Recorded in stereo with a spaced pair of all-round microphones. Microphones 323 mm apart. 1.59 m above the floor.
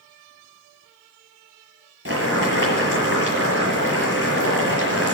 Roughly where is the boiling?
Right.